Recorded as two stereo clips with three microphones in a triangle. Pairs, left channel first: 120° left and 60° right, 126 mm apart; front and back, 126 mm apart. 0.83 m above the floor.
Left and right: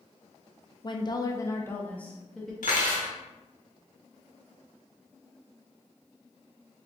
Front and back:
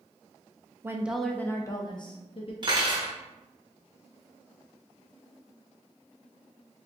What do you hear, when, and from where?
0.8 s a woman speaking: 125° left, 0.5 m; by 2.5 s 35° left, 1.0 m
2.6 s cutlery clinking: 125° left, 1.1 m